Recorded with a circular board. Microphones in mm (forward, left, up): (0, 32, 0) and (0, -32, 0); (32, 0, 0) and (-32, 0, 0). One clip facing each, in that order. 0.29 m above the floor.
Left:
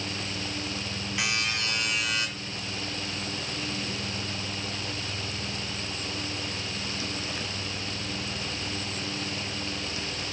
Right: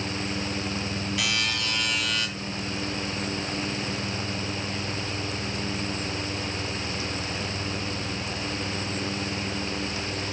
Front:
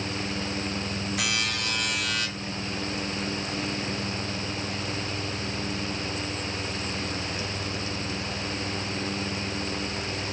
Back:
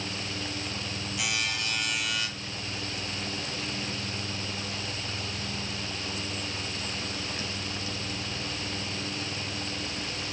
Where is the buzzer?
30° left, 4.5 m.